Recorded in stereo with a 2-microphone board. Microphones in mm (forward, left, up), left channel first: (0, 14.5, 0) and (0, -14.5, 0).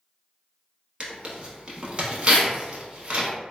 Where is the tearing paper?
35° right (ahead or behind), 0.7 m.